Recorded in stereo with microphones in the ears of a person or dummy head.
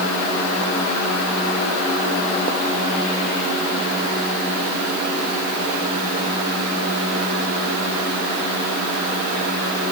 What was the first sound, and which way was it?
Only background noise.